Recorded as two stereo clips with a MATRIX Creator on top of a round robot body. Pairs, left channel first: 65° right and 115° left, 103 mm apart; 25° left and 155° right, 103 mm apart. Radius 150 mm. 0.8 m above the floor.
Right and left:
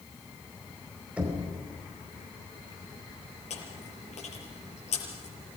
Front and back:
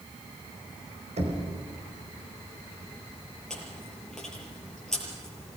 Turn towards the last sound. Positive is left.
turn(degrees=-60)